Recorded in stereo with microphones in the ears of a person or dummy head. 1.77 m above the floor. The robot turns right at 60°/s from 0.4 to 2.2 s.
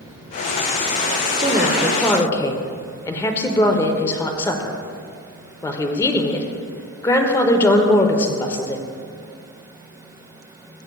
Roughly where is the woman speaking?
Ahead right.